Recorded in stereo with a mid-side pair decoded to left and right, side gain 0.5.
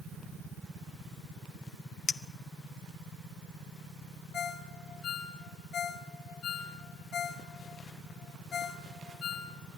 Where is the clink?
30° left, 0.8 m.